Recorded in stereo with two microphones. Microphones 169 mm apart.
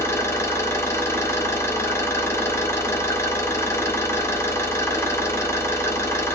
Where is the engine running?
15° left (ahead or behind), 0.7 m.